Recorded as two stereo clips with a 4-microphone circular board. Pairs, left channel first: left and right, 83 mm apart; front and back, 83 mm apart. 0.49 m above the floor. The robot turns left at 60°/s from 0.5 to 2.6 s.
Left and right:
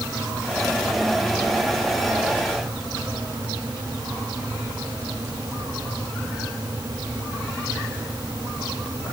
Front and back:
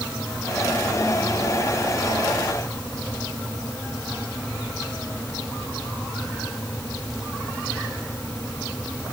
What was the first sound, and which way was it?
Only background noise.